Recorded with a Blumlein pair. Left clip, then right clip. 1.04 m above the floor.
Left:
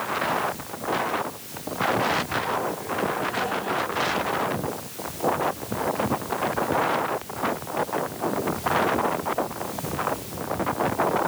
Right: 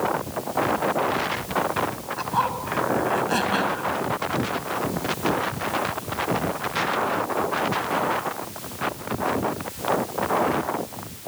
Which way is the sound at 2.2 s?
45° right.